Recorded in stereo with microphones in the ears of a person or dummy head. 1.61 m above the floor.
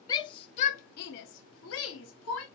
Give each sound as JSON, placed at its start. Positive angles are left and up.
{"t": 0.1, "sound": "a shout", "side_deg": 30, "distance_m": 0.8}